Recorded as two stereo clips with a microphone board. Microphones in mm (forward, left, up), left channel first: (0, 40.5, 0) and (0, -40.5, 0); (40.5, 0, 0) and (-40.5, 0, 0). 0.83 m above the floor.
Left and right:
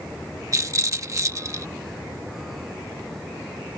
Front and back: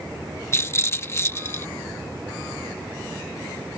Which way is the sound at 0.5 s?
50° right.